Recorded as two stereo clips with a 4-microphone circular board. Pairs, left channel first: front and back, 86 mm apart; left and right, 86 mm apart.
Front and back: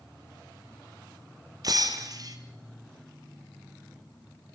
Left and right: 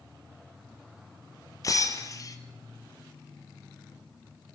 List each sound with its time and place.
1.6 s breaking glass: 135° left, 2.5 m